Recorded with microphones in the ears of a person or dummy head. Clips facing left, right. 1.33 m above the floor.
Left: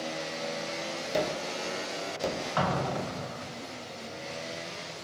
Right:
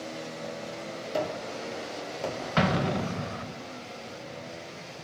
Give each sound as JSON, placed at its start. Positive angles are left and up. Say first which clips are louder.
{"t": 1.1, "sound": "a gunshot", "louder": "left 1 dB", "side_deg": 20, "distance_m": 1.4}
{"t": 2.6, "sound": "an explosion", "louder": "right 5 dB", "side_deg": -30, "distance_m": 0.5}